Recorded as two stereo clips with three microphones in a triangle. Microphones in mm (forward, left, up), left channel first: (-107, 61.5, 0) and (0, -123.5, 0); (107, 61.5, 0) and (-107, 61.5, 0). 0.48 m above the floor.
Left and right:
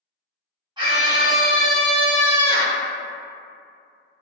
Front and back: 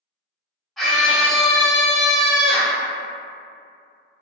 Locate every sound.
0.8 s a scream: 90° right, 1.3 m